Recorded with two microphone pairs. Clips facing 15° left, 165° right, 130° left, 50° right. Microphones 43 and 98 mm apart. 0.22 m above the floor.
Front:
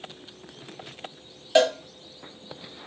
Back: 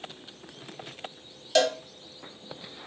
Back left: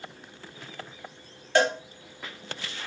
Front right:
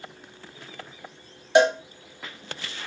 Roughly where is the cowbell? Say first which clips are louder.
Front 4 dB, front right 5 dB; ahead.